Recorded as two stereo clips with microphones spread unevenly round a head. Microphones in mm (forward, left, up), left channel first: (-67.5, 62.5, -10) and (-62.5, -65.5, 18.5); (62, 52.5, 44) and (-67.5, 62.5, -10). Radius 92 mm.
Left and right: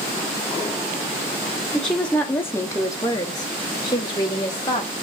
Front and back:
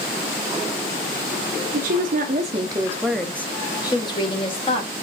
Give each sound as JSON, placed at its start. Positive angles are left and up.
{"t": 1.7, "sound": "a woman speaking", "azimuth_deg": -170, "distance_m": 0.8}